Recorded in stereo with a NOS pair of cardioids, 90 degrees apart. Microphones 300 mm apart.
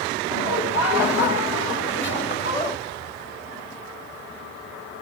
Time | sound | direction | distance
0.3 | laughter | 60° left | 2.5 m